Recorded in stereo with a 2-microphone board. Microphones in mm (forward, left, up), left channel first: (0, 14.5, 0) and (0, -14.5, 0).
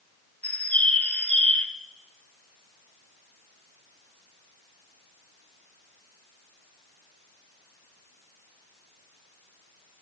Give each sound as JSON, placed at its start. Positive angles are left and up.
{"t": 0.4, "sound": "a bird", "side_deg": 60, "distance_m": 0.8}